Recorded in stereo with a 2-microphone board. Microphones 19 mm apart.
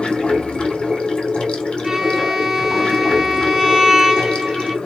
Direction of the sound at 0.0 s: 75° left (ahead or behind).